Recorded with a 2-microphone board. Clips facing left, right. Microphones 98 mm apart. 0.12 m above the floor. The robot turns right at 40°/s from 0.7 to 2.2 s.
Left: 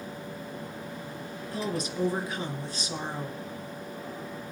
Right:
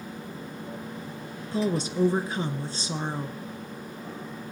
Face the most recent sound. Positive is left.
turn(degrees=-30)  # may be behind; listen again after turning